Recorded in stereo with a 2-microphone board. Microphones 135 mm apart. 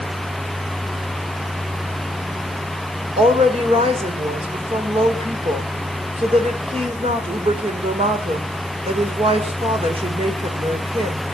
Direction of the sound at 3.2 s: 45° right (ahead or behind).